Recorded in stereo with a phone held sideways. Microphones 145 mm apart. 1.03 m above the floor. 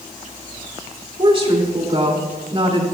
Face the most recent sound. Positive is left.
turn(degrees=-35)  # may be behind; listen again after turning